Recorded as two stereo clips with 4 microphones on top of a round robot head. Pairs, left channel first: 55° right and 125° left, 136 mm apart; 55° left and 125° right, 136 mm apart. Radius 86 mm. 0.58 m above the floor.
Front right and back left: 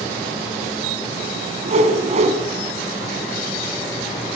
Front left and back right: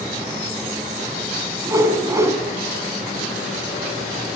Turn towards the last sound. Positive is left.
turn(degrees=165)